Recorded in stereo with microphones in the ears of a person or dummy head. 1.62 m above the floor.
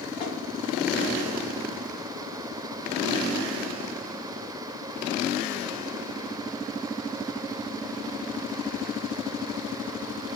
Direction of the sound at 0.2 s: 25° left (ahead or behind).